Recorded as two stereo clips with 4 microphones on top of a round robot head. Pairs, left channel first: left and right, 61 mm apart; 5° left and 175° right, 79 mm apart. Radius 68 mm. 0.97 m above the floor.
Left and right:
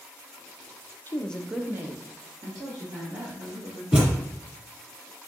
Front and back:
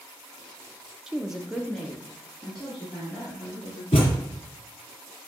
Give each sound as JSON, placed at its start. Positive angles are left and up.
{"t": 1.1, "sound": "a woman speaking", "azimuth_deg": 105, "distance_m": 0.6}
{"t": 3.9, "sound": "a thud", "azimuth_deg": -25, "distance_m": 1.2}